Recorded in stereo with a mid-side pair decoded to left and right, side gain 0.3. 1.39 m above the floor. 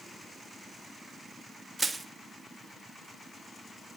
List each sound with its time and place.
1.8 s crushing: 30° right, 1.8 m